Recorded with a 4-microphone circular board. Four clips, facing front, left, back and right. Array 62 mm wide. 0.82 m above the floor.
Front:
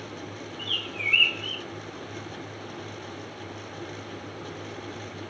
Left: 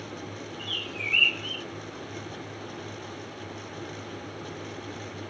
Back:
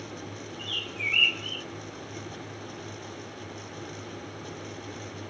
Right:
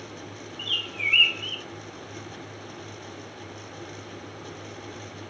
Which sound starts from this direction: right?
A bird, at 0.6 s.